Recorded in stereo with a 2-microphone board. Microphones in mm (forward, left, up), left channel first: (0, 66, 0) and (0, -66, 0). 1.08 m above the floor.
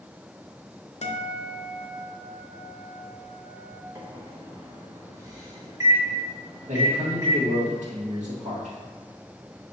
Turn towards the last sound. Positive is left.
turn(degrees=-70)  # may be behind; listen again after turning